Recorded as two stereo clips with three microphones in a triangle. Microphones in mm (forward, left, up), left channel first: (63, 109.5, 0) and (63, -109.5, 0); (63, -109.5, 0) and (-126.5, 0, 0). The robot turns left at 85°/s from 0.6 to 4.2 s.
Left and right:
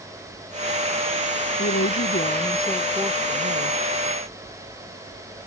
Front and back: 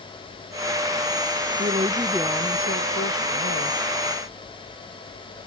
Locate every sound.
1.6 s a woman speaking: 110° left; by 3.8 s 80° right